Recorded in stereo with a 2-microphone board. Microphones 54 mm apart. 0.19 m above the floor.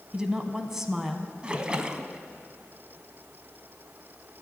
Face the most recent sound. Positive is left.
turn(degrees=-20)  # may be behind; listen again after turning